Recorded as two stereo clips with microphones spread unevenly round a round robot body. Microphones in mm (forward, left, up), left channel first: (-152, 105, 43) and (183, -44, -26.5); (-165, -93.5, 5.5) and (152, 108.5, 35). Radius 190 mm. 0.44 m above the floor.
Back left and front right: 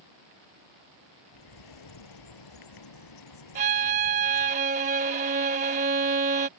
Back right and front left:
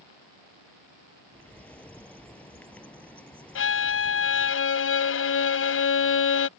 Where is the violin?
90° right.